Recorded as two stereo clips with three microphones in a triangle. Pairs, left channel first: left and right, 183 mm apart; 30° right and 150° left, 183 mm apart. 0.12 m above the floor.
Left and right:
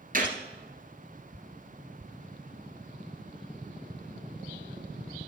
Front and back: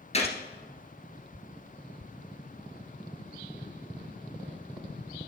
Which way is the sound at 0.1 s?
75° right.